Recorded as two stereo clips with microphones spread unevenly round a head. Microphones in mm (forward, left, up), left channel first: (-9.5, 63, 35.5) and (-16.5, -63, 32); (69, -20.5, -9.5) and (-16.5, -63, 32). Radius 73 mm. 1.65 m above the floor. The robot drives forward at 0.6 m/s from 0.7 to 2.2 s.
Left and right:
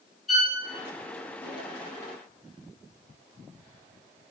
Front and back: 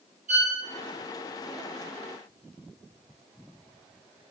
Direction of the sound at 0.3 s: 175° left.